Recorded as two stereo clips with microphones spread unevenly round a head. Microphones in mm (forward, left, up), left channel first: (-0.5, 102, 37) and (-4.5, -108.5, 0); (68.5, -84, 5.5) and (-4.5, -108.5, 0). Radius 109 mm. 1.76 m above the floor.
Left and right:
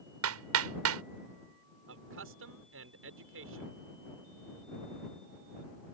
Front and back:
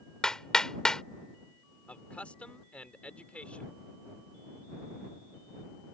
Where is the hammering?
65° right.